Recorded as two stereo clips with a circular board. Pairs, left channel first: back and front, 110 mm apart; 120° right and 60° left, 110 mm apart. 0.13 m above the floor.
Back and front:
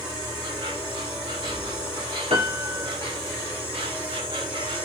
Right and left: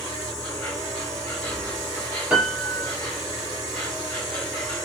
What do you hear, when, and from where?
0.0 s an insect: 40° right, 4.5 m
2.3 s a piano: 15° right, 3 m